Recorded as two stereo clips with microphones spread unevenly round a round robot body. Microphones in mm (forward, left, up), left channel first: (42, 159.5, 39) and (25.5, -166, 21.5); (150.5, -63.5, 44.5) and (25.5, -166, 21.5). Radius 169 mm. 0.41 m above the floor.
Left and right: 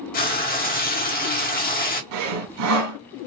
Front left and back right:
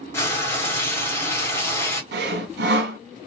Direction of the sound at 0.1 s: 110° left.